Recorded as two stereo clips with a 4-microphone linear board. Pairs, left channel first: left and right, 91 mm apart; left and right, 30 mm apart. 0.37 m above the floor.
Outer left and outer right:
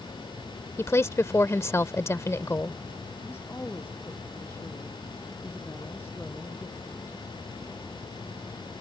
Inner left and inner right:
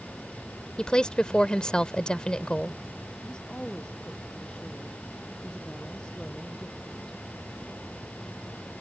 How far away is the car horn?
No car horn in this recording.